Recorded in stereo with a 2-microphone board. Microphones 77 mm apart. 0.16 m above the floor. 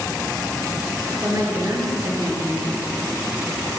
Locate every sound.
1.2 s a woman speaking: 45° right (ahead or behind), 2.5 m